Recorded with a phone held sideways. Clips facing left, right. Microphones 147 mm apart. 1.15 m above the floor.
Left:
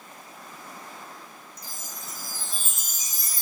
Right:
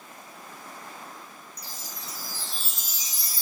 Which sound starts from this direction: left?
A chime, at 1.6 s.